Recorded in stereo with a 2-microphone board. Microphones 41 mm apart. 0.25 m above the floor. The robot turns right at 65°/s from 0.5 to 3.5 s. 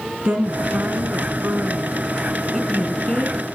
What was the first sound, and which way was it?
A woman speaking, 130° right.